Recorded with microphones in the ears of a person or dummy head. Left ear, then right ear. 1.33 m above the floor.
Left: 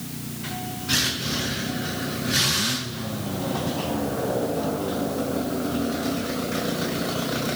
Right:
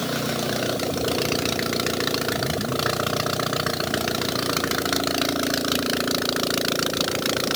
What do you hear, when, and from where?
Only background noise.